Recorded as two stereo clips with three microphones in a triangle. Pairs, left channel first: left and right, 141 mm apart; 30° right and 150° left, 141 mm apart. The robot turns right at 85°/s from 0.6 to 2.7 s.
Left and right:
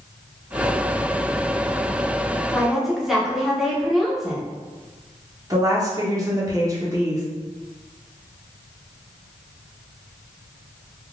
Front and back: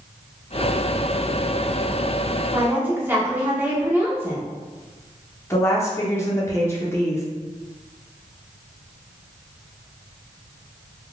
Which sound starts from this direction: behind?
A woman speaking, at 2.5 s.